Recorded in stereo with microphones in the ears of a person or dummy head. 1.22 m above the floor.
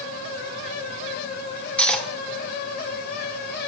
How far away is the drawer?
I don't hear a drawer.